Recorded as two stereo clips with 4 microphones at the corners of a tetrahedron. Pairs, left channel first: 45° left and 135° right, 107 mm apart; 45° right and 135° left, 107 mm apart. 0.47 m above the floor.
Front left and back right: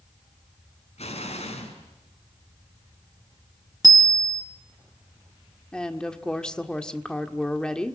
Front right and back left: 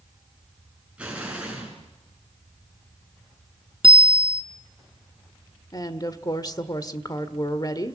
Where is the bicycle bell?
170° left, 3 m.